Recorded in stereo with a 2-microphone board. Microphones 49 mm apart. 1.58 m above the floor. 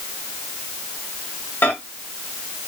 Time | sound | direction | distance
1.6 | a microwave | 45° left (ahead or behind) | 1.2 m